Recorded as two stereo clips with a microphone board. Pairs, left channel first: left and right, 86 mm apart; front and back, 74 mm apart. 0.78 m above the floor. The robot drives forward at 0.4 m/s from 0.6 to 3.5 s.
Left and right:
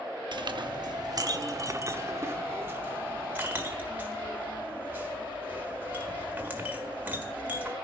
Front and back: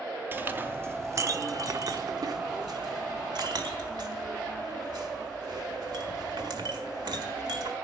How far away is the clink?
About 0.6 m.